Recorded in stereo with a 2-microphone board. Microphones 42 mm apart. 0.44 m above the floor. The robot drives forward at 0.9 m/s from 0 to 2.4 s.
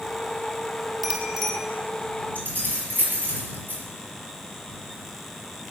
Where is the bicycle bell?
5° right (ahead or behind), 2.5 m; by 1.5 s centre (ahead or behind), 3 m.